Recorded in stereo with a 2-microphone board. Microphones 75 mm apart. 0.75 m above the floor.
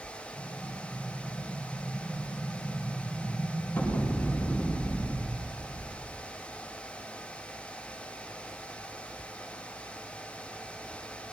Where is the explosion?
25° left (ahead or behind), 5 m.